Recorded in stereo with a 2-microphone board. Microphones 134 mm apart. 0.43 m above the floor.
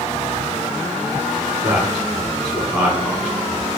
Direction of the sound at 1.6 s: 15° right (ahead or behind).